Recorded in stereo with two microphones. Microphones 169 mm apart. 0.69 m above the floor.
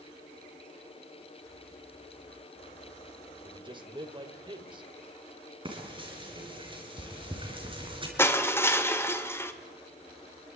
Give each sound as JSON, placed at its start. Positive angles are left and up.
{"t": 3.4, "sound": "a man speaking", "side_deg": -30, "distance_m": 3.0}
{"t": 5.7, "sound": "frying", "side_deg": -30, "distance_m": 6.0}
{"t": 8.2, "sound": "crushing", "side_deg": 15, "distance_m": 2.0}